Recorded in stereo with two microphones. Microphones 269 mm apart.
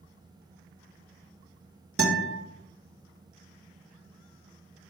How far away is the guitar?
About 1.2 m.